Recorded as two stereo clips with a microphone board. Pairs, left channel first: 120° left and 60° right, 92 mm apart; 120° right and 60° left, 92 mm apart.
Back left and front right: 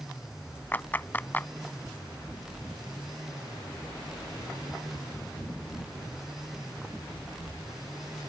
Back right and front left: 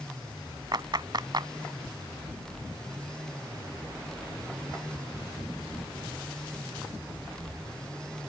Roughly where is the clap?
Ahead left.